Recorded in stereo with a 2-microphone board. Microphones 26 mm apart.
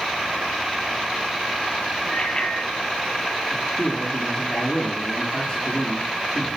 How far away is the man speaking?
About 6.5 m.